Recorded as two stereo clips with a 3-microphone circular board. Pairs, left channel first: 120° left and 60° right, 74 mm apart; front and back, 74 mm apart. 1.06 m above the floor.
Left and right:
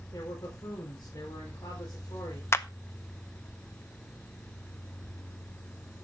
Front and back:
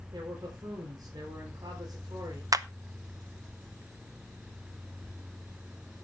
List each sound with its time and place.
0.1 s a man speaking: 145° left, 4.5 m
2.5 s a clap: 165° left, 0.7 m